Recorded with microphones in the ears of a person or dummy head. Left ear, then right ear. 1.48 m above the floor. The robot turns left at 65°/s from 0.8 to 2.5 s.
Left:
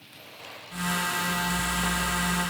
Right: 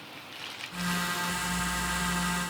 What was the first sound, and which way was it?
Only background noise.